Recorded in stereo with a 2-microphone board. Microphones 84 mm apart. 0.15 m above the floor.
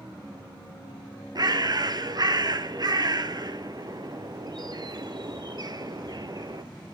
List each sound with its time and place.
1.4 s a bird: 50° right (ahead or behind), 1.0 m